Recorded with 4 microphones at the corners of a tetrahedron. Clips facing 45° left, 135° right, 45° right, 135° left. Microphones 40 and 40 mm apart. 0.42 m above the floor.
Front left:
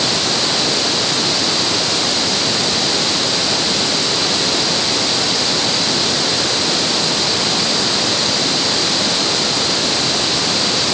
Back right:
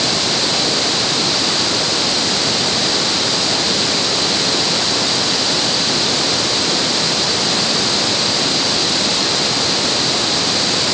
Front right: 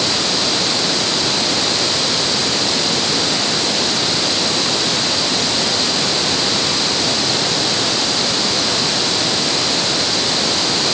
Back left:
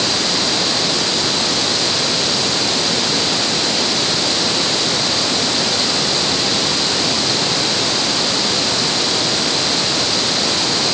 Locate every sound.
Only background noise.